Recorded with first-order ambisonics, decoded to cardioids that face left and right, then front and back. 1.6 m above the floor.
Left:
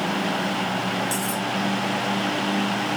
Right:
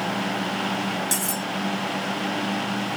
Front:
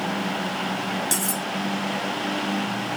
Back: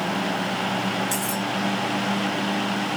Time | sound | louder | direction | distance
1.1 | cutlery clinking | left 1 dB, even | 25° right | 1.6 m